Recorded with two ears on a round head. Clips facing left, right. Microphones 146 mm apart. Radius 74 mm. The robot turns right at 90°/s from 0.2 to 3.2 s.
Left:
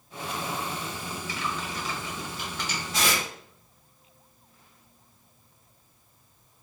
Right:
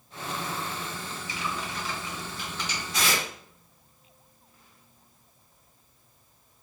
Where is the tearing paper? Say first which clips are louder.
Left 1 dB; 20° left (ahead or behind), 1.2 m; by 3.3 s 45° left (ahead or behind), 1.2 m.